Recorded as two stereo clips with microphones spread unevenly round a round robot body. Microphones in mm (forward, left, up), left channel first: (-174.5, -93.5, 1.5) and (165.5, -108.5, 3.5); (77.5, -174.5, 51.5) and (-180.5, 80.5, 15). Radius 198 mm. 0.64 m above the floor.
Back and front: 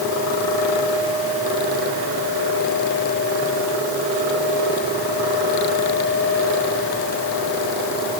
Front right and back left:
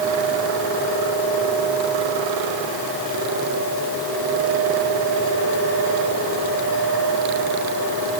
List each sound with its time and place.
Only background noise.